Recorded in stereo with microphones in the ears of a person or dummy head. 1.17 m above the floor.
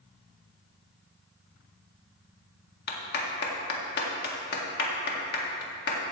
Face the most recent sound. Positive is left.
turn(degrees=55)  # may be behind; listen again after turning